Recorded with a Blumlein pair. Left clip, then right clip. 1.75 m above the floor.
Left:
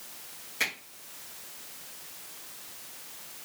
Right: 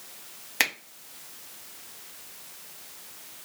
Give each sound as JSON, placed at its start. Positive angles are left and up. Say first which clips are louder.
{"t": 0.6, "sound": "a finger snap", "louder": "right 5 dB", "azimuth_deg": -40, "distance_m": 1.2}